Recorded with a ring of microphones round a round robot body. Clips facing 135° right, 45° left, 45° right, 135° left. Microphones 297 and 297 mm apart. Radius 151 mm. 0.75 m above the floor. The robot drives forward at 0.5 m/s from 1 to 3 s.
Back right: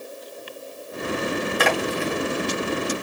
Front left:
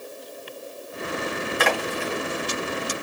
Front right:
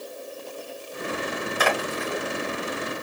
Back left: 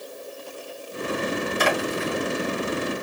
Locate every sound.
1.6 s a splash: 130° right, 2 m; by 2.2 s 135° right, 2.5 m